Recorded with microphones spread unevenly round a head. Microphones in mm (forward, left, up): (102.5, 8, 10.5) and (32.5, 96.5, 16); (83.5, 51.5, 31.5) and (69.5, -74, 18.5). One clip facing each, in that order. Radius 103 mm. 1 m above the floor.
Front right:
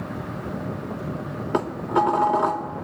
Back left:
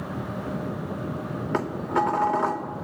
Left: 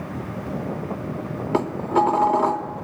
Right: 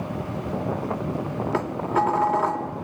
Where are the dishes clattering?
20° left, 2 m.